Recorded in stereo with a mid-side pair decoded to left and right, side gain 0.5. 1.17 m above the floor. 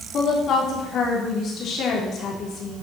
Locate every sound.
0.1 s a woman speaking: 60° left, 3.5 m